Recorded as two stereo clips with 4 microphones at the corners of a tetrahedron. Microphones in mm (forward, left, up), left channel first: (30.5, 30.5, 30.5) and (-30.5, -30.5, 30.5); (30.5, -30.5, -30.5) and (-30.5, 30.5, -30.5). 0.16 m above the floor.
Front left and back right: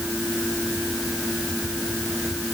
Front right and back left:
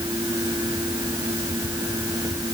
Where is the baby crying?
I don't hear a baby crying.